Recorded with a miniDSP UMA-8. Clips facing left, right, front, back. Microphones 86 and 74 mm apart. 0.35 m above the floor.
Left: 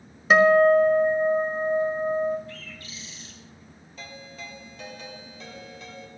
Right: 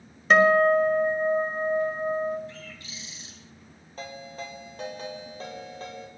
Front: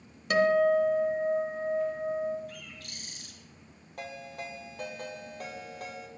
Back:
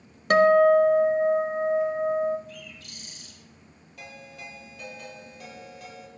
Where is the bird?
25° right, 2.5 m.